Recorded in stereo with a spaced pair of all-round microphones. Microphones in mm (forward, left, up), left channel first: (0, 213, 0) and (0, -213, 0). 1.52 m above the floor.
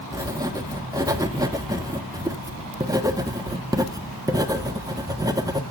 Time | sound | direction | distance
0.1 | writing | 10° right (ahead or behind) | 1.2 m